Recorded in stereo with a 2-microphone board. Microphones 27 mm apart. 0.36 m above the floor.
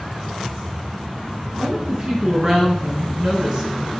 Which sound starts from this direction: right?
A woman speaking, at 1.6 s.